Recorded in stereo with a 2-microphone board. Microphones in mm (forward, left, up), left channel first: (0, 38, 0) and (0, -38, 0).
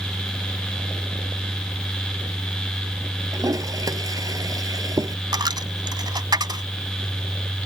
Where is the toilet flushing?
50° right (ahead or behind).